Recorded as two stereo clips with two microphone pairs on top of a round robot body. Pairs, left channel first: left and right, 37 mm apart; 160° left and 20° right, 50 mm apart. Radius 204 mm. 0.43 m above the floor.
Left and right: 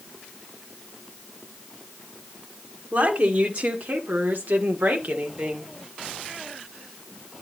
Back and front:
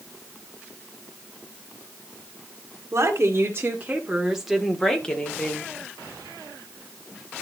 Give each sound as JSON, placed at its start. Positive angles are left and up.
{"t": 2.9, "sound": "a woman speaking", "azimuth_deg": -50, "distance_m": 3.0}